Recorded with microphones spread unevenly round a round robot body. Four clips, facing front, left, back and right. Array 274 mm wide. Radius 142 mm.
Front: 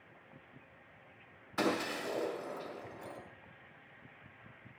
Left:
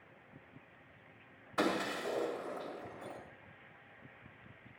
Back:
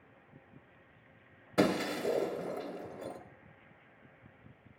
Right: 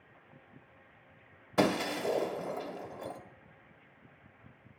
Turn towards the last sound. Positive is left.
turn(degrees=-145)